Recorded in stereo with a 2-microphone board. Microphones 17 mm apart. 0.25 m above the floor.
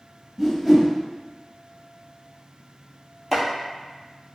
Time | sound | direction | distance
0.4 | a whoosh | 10° right (ahead or behind) | 0.8 m
3.3 | chopping | 5° left (ahead or behind) | 1.2 m